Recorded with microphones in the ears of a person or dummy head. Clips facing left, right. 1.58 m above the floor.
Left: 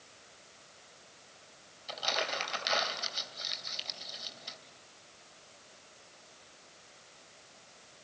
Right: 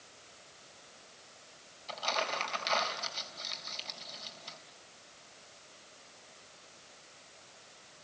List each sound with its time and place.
1.9 s crumpling: 15° left (ahead or behind), 3.5 m